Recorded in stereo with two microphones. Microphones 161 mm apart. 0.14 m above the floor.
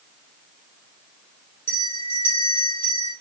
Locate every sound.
1.7 s a bell: 15° left (ahead or behind), 6 m